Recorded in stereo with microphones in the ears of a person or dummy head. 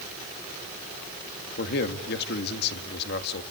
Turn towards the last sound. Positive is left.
turn(degrees=60)  # may be behind; listen again after turning